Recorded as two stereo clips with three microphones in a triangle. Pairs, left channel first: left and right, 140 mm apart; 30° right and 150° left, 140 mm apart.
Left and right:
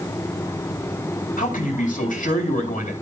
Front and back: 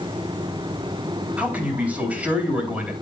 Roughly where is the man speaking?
Left.